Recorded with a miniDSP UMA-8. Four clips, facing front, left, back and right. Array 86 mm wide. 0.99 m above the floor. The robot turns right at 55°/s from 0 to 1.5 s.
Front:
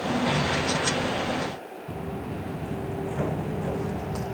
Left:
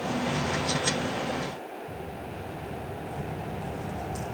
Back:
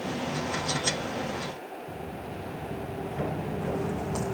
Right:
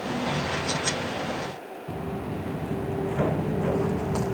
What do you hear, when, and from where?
1.9 s footsteps: 60° right; by 4.3 s 105° right